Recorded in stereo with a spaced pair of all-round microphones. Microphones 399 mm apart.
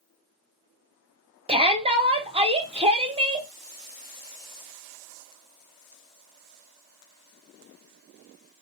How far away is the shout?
About 0.8 m.